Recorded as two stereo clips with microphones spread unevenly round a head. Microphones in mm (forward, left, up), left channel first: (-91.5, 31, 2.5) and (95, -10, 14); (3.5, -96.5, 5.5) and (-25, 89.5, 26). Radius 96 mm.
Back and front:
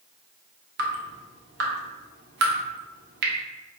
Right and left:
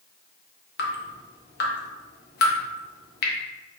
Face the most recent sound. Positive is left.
turn(degrees=-50)